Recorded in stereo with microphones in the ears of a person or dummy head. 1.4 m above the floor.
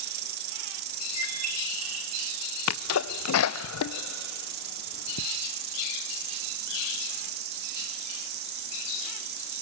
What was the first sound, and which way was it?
An insect, 55° right (ahead or behind).